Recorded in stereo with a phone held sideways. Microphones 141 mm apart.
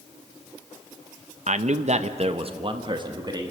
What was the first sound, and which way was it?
A man speaking, 55° right (ahead or behind).